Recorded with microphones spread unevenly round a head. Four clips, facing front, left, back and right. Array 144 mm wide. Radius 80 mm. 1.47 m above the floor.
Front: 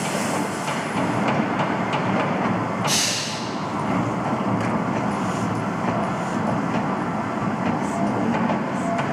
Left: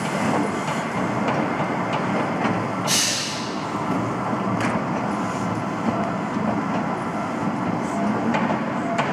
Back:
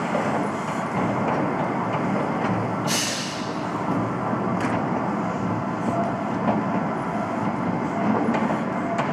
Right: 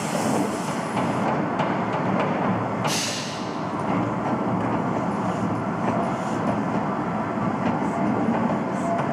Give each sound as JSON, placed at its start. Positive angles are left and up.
{"t": 2.9, "sound": "a hiss", "azimuth_deg": -65, "distance_m": 1.5}